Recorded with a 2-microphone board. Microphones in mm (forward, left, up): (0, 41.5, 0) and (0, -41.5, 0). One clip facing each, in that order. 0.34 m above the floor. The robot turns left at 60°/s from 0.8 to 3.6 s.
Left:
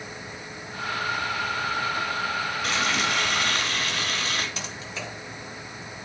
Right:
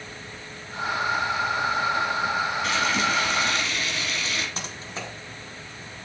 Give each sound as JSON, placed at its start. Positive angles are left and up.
{"t": 2.6, "sound": "frying", "azimuth_deg": 105, "distance_m": 1.5}
{"t": 4.6, "sound": "typing on a keyboard", "side_deg": -35, "distance_m": 1.9}